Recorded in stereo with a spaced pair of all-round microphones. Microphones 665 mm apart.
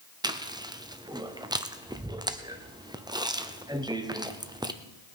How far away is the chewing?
About 0.6 m.